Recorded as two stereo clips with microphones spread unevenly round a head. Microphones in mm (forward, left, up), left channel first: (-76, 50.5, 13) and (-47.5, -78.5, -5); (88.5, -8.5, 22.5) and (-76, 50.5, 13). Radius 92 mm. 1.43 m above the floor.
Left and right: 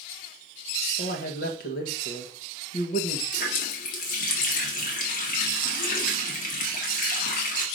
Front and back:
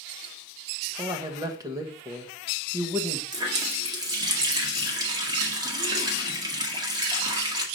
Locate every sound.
1.0 s a man speaking: 90° left, 1.3 m
3.3 s a running tap: 90° left, 1.8 m